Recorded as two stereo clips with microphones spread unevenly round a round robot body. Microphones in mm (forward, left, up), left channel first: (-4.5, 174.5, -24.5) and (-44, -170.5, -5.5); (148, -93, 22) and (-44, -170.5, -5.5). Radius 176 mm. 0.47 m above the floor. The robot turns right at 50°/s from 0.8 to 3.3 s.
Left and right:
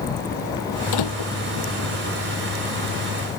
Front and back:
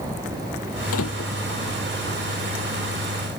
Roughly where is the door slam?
Ahead left.